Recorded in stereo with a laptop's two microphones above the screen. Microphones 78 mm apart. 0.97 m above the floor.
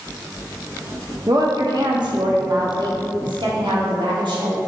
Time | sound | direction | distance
1.3 | a woman speaking | 45° right (ahead or behind) | 1.0 m